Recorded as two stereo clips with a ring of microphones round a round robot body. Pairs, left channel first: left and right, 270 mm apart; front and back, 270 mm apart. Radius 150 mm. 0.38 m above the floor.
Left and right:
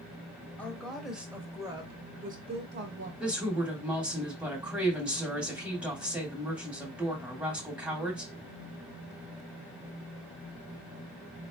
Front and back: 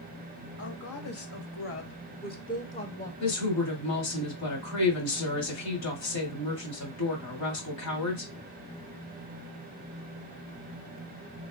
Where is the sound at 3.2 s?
5° right, 2.5 m.